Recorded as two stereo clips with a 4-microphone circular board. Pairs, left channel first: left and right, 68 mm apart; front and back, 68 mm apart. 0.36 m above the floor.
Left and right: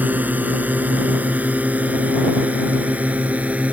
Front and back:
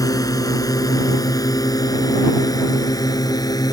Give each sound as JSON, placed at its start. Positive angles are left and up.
{"t": 0.0, "sound": "a drone", "azimuth_deg": -25}